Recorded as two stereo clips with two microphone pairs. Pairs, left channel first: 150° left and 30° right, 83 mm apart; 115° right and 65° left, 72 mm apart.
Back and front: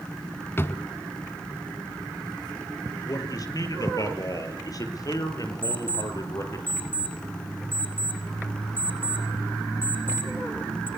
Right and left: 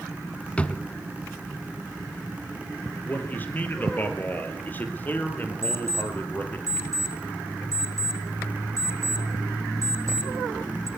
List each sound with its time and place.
0.6 s a drawer: 175° right, 0.8 m
3.0 s a man speaking: 175° right, 4 m
5.6 s an alarm clock: 30° left, 3.5 m